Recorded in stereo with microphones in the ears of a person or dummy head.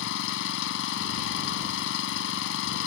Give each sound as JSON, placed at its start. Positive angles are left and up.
{"t": 0.0, "sound": "an engine running", "side_deg": 65}